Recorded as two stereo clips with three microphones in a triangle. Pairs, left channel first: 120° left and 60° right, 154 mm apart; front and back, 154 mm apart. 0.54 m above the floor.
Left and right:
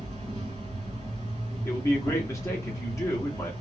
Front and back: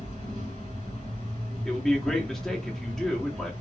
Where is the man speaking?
85° left, 0.7 m.